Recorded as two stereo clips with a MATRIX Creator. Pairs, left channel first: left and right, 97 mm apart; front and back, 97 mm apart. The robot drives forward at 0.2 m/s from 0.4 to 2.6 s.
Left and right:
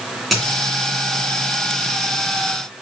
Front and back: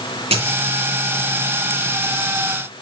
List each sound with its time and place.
0.3 s a dropped coin: straight behind, 1.9 m